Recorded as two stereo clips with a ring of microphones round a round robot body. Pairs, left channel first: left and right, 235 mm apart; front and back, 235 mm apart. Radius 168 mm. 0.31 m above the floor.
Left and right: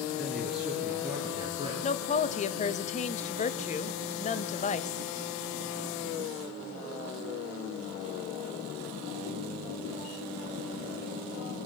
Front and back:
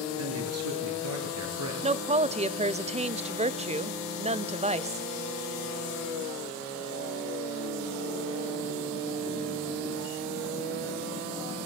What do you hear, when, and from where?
0.2 s a man speaking: 175° left, 6.5 m; by 1.7 s 165° right, 6.5 m
1.8 s a woman speaking: 135° left, 1.1 m